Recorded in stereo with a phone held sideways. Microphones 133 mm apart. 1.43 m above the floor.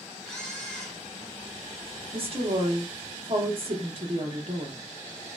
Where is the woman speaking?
45° right (ahead or behind), 0.9 m.